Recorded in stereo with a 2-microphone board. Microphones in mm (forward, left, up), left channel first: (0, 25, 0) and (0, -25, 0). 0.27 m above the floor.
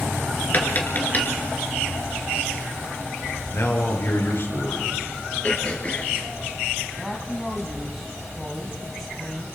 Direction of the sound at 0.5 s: 35° left (ahead or behind).